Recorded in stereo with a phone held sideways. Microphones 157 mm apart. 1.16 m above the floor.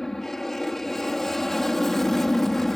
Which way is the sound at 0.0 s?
Centre (ahead or behind).